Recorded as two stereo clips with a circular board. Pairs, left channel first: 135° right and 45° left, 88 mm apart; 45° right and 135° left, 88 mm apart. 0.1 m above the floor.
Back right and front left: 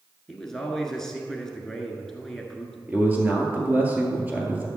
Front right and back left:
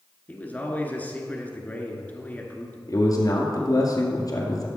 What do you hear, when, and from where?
0.3 s a man speaking: 60° right, 1.2 m
2.9 s a man speaking: 20° right, 2.0 m